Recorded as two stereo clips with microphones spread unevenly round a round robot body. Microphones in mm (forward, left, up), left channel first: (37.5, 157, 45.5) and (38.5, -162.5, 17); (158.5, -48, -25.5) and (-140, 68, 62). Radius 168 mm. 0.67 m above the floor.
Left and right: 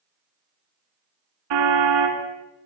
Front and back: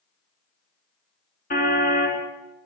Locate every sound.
1.5 s a car horn: 90° right, 4 m